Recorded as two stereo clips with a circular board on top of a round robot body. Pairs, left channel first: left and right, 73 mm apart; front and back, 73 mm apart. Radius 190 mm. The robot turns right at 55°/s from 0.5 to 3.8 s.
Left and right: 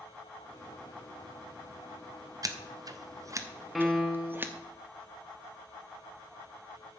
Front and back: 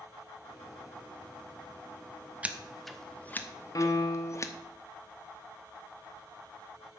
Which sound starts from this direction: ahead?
A piano, at 3.8 s.